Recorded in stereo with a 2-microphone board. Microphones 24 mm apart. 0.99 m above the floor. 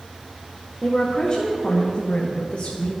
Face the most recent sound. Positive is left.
turn(degrees=65)  # may be behind; listen again after turning